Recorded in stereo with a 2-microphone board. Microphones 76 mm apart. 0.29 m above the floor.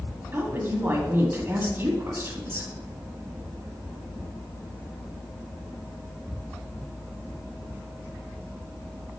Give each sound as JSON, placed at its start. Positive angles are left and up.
{"t": 0.3, "sound": "a woman speaking", "side_deg": -30, "distance_m": 1.8}